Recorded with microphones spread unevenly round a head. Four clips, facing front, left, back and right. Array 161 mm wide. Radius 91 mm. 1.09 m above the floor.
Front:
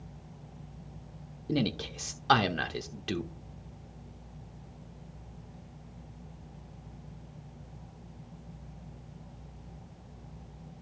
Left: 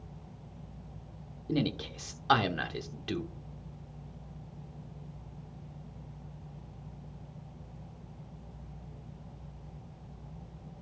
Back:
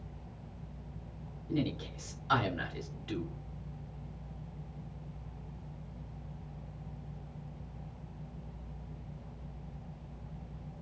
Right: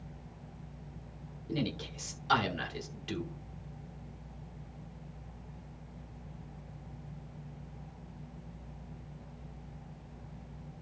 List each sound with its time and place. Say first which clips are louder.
1.5 s a man speaking: left 4 dB, front 3 dB; 15° left, 1.3 m